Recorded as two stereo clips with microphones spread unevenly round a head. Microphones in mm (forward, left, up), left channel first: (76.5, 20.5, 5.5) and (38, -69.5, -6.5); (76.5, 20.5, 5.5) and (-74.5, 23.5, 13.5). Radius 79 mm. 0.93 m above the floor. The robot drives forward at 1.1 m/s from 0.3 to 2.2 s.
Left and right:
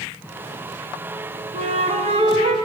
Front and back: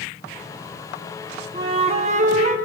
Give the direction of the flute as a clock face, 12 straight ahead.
4 o'clock.